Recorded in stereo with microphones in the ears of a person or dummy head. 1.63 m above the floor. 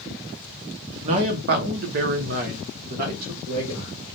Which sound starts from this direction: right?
A man speaking, at 1.0 s.